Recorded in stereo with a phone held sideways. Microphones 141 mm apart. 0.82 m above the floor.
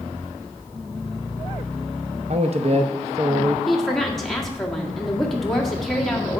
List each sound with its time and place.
2.3 s a man speaking: 50° right (ahead or behind), 0.8 m
3.7 s a woman speaking: centre (ahead or behind), 1.7 m